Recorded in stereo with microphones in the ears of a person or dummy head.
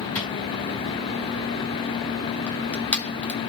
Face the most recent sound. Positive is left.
turn(degrees=10)  # may be behind; listen again after turning